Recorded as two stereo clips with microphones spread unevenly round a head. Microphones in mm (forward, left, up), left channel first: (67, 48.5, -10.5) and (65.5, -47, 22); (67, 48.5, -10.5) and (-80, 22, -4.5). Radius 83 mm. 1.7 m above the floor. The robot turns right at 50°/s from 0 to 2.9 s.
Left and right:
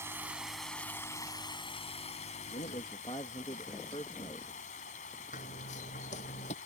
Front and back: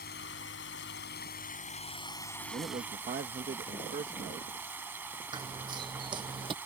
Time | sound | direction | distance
0.0 | running water | 30° right | ?
2.5 | a man speaking | 135° left | ?
5.3 | running footsteps | 130° left | ?